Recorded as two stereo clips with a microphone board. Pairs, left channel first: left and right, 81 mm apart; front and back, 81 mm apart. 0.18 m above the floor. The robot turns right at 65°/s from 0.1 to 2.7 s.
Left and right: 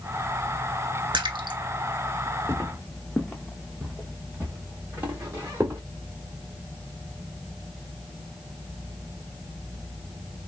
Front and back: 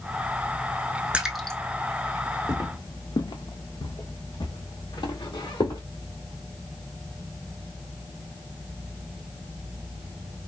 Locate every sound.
1.1 s a splash: 105° right, 0.5 m; by 1.6 s 75° right, 0.5 m
2.5 s footsteps: 35° left, 0.6 m; by 5.8 s 30° right, 2 m